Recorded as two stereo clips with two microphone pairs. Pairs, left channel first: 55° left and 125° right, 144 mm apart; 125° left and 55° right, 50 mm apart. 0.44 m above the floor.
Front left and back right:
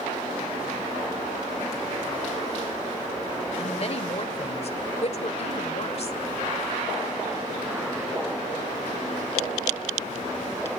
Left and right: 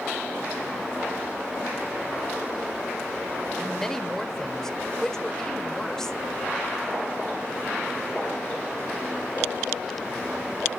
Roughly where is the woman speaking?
Ahead left.